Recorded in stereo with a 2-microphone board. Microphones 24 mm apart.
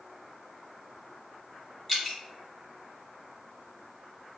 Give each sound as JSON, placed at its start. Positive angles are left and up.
{"t": 1.9, "sound": "dripping", "side_deg": 0, "distance_m": 1.1}